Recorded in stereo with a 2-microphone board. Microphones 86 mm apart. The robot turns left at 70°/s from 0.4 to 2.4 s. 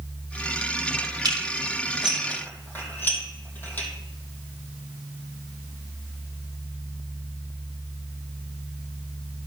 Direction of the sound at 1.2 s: 55° right (ahead or behind).